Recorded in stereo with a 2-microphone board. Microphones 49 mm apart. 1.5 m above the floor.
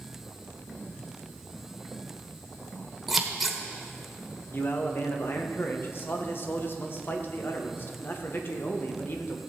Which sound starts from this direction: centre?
Scissors, at 3.1 s.